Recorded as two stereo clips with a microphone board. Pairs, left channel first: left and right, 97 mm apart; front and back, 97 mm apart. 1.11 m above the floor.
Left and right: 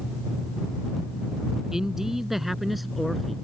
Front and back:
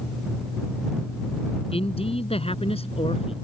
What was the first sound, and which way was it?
A man speaking, 5° right.